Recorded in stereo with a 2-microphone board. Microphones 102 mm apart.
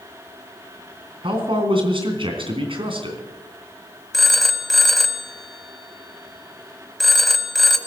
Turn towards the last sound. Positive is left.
turn(degrees=0)  # may be behind; listen again after turning